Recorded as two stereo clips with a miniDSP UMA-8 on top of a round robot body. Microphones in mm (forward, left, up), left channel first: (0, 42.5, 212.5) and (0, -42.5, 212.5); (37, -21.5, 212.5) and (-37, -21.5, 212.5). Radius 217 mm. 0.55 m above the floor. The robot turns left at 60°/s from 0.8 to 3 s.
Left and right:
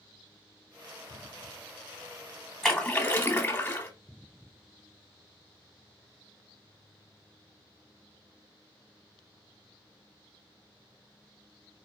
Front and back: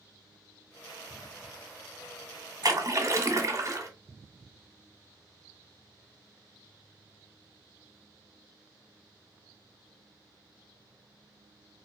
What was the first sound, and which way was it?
A splash, 175° left.